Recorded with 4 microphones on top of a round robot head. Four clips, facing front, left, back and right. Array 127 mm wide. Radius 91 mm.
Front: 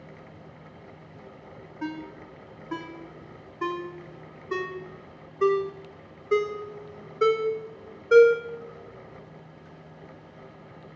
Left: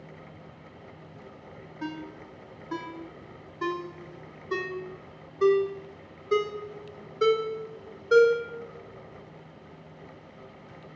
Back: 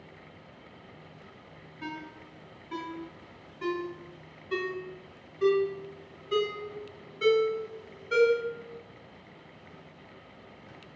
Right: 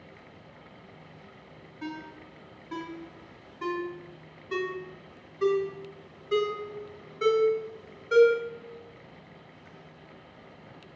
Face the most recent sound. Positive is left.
turn(degrees=30)